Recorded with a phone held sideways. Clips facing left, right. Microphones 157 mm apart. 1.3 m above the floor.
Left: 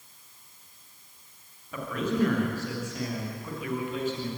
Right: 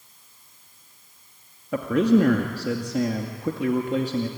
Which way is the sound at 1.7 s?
85° right.